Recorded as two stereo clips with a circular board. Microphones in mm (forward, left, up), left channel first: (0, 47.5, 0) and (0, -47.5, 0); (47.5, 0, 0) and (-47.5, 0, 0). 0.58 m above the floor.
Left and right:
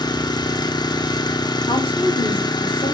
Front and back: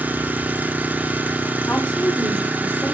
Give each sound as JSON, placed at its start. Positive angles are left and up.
{"t": 0.0, "sound": "an engine running", "azimuth_deg": 110, "distance_m": 0.9}
{"t": 1.7, "sound": "a woman speaking", "azimuth_deg": 80, "distance_m": 4.0}